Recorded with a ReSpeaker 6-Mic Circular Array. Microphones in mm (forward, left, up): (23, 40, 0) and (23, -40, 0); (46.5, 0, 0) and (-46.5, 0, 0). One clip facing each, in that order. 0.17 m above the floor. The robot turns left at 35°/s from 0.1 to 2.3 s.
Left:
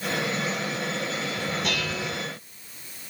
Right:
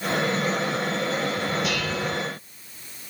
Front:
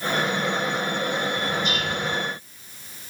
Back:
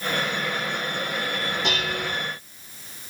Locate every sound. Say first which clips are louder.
1.6 s dishes clattering: right 3 dB, front 1 dB; 175° right, 8.5 m; by 2.1 s 170° left, 8.5 m